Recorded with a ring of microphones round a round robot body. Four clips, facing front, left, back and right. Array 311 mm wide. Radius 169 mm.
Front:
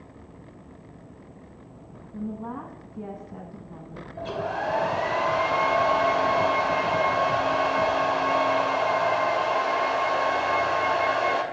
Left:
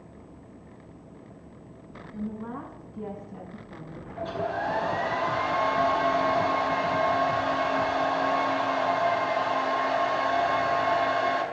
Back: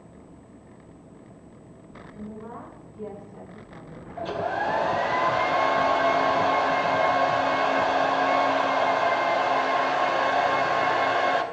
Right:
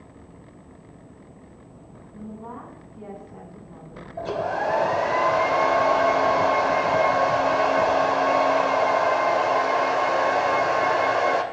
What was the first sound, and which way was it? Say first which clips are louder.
A woman speaking: left 2 dB, front 5 dB; 20° left.